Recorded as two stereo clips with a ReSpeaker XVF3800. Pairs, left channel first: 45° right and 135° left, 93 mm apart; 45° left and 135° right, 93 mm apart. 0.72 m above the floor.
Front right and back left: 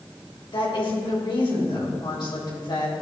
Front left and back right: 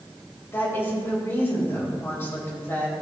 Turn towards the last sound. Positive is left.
turn(degrees=-20)